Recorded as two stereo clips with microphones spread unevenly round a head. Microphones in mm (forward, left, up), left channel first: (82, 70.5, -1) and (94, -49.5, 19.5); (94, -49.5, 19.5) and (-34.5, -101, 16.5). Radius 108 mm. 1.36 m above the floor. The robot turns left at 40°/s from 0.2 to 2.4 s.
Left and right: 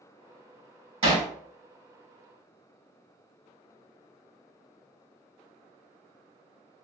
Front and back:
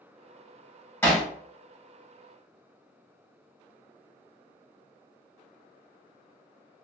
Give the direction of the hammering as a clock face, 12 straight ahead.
2 o'clock.